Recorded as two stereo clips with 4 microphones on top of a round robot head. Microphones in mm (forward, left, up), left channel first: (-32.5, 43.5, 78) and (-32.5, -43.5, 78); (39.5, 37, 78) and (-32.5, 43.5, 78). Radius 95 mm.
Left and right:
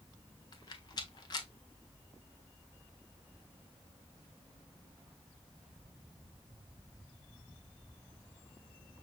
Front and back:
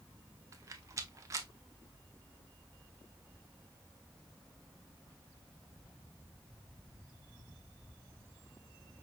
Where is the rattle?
130° left, 0.5 m.